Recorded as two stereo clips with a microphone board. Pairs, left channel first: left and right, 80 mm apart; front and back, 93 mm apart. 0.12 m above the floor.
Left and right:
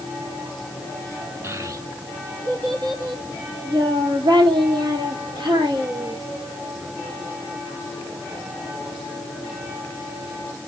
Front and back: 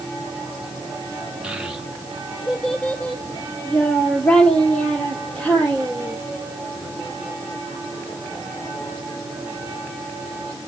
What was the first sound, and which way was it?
A child speaking, 105° right.